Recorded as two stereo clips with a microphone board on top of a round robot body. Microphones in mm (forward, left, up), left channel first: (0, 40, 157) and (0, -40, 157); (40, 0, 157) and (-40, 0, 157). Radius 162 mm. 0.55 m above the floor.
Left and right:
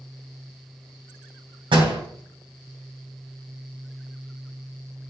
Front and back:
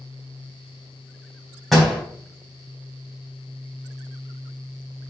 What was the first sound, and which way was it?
A door slam, 90° right.